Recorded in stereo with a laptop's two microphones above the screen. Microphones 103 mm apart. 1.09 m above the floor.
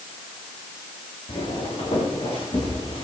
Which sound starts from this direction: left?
Footsteps, at 1.3 s.